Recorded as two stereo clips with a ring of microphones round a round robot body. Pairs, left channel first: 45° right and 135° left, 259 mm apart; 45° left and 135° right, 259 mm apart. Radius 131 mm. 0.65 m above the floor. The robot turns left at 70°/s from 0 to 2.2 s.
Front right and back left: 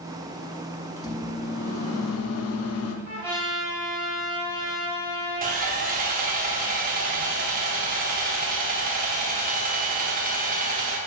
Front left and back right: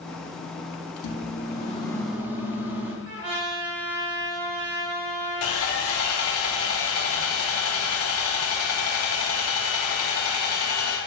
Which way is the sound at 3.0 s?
160° right.